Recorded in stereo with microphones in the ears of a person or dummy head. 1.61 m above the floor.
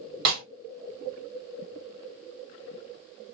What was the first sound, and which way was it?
A snare drum, 55° right (ahead or behind).